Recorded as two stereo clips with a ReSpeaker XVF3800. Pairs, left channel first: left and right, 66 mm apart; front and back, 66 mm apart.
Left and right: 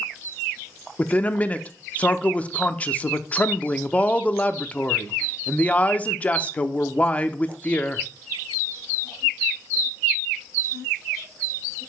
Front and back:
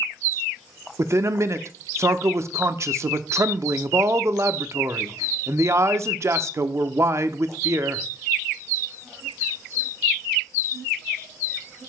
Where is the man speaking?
150° left, 0.6 m.